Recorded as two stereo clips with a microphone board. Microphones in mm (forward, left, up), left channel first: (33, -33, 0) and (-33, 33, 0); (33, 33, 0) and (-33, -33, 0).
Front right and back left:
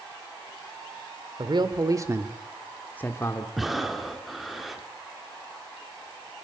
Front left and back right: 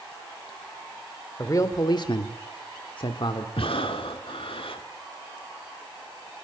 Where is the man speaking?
100° left, 2.5 m; by 3.5 s 5° left, 2 m.